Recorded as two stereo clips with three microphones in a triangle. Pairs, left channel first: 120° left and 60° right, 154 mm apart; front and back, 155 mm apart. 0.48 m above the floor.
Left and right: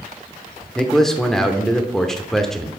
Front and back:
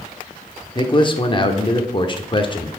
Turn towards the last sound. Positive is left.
turn(degrees=35)